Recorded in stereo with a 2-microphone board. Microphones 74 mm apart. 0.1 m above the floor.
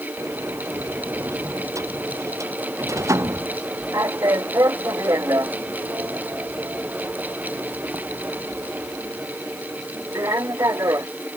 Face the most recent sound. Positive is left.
turn(degrees=-40)  # may be behind; listen again after turning